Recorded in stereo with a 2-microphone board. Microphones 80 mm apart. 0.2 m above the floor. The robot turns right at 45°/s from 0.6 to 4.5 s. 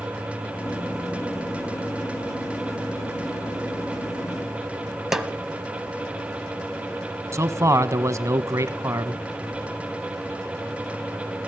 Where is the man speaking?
40° right (ahead or behind), 1.3 m.